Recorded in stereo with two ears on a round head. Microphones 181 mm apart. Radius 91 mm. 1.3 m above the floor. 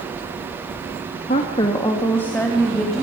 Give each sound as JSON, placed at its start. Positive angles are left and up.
{"t": 1.3, "sound": "a woman speaking", "side_deg": 35, "distance_m": 1.9}